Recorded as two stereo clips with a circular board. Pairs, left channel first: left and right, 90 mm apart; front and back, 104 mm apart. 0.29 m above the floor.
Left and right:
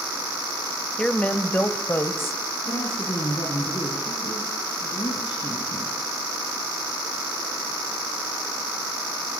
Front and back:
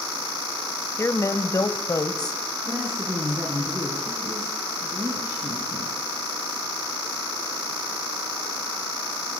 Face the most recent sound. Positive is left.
turn(degrees=115)